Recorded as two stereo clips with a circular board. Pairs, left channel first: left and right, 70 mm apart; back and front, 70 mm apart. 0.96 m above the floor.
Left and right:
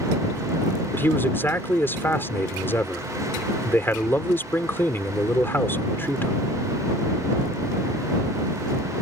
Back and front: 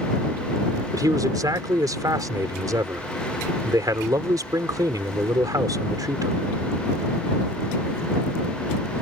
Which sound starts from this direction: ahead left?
A man speaking, at 0.9 s.